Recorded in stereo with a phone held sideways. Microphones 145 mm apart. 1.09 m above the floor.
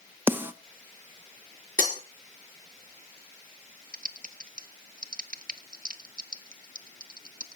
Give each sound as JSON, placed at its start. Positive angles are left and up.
{"t": 0.3, "sound": "a snare drum", "side_deg": -15, "distance_m": 0.9}
{"t": 1.8, "sound": "breaking glass", "side_deg": -75, "distance_m": 4.5}
{"t": 3.9, "sound": "typing on a keyboard", "side_deg": -70, "distance_m": 0.7}